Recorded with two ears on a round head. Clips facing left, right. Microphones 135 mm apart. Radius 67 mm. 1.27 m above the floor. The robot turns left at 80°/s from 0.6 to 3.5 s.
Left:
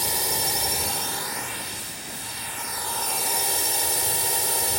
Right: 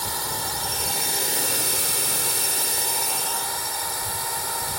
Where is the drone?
25° left; by 4.8 s 150° left.